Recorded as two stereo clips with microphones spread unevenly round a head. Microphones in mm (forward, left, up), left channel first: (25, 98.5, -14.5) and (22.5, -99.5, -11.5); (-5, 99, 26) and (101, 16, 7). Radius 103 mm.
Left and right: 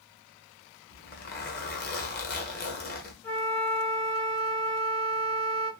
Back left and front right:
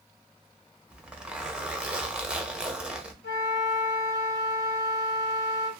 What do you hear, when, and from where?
0.9 s a zipper: 45° left, 0.8 m
3.2 s a flute: 170° left, 0.5 m